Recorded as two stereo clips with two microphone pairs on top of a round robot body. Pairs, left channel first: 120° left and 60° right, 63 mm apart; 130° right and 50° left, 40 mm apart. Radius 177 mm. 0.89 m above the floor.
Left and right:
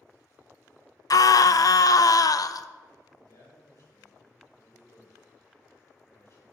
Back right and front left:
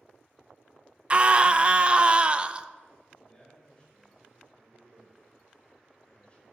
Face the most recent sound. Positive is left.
turn(degrees=165)